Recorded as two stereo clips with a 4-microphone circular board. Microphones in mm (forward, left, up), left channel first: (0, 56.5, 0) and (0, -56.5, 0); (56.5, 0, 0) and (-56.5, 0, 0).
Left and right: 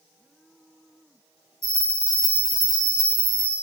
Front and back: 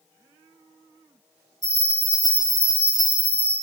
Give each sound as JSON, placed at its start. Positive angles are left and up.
{"t": 1.6, "sound": "a bell", "azimuth_deg": 50, "distance_m": 2.0}